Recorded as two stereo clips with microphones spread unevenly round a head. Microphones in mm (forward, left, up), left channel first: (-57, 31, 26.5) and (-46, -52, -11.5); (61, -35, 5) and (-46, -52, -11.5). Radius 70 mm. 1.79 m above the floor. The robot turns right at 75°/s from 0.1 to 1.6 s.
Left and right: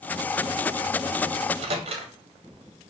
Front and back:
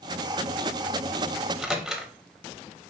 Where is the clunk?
No clunk in this recording.